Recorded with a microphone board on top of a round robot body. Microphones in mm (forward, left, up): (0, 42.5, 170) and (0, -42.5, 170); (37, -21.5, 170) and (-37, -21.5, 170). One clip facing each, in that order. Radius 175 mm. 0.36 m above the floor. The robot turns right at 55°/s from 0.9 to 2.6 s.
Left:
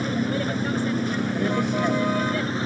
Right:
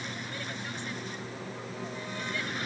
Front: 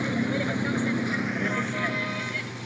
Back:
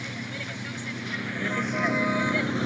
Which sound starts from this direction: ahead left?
A vehicle, at 0.0 s.